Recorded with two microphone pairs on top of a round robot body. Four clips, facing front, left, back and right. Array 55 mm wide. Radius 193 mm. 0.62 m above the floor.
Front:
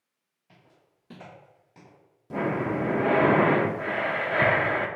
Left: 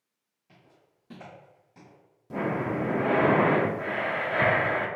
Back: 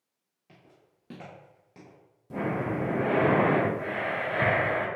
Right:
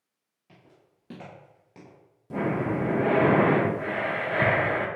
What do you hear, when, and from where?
0.5 s footsteps: 170° right, 1.0 m; by 2.0 s 95° right, 0.9 m
2.3 s breathing: 5° right, 0.5 m